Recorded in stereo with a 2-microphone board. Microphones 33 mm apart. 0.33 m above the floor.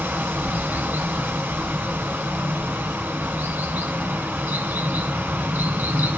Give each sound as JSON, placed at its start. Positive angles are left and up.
{"t": 0.0, "sound": "running water", "side_deg": -65, "distance_m": 1.2}